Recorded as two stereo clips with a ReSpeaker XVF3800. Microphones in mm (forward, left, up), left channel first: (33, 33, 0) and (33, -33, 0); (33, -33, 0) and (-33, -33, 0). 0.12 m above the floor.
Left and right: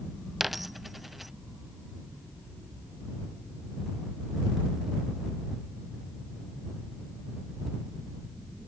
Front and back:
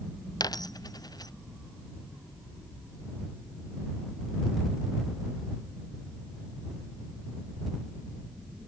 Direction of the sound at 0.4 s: Straight ahead.